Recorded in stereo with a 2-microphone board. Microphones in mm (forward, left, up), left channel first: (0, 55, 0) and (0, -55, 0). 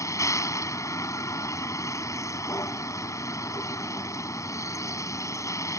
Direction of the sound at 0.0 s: 30° left (ahead or behind).